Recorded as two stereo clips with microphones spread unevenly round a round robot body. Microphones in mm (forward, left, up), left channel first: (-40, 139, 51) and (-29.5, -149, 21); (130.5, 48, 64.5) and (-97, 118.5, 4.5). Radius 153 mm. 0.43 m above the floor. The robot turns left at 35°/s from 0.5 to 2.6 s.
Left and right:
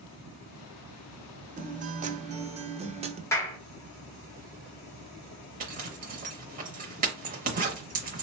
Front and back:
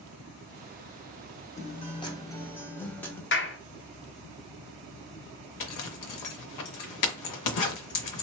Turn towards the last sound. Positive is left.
turn(degrees=-25)